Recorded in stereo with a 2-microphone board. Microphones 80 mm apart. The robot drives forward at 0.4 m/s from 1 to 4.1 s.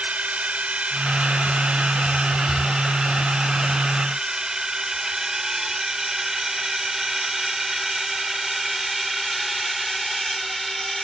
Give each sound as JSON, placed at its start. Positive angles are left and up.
{"t": 0.0, "sound": "a drone", "side_deg": -20}